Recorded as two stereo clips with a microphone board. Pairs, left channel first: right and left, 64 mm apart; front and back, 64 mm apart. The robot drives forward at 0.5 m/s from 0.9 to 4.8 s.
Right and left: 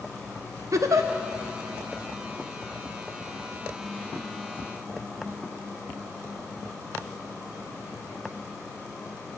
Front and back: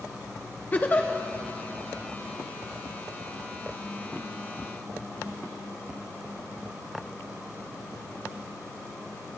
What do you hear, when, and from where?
0.7 s a giggle: 60° left, 0.8 m; by 1.1 s 65° left, 0.8 m